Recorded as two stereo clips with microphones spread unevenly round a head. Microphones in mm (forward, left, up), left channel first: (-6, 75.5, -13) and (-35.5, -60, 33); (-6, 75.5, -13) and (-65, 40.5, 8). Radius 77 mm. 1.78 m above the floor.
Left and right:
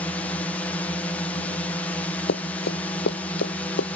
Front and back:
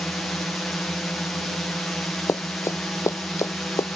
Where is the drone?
80° left.